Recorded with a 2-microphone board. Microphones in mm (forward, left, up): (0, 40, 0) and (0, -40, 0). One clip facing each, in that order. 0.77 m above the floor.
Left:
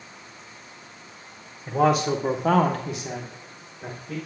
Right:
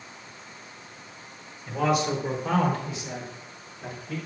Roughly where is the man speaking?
Left.